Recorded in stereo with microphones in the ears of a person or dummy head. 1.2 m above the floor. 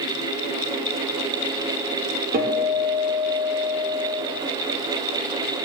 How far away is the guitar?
About 2 m.